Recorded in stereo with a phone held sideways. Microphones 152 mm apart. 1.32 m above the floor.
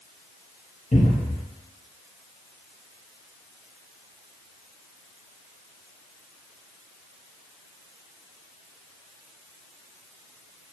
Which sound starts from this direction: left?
A cupboard door, at 0.9 s.